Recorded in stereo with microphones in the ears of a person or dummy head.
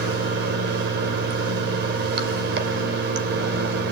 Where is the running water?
60° right (ahead or behind), 2 m.